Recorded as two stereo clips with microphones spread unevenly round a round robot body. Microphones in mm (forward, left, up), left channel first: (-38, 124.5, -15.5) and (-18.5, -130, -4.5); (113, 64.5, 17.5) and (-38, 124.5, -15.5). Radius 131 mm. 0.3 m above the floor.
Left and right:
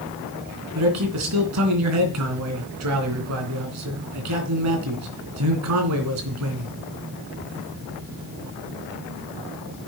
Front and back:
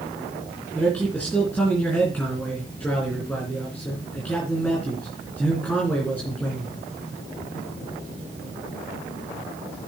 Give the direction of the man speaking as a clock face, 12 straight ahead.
4 o'clock.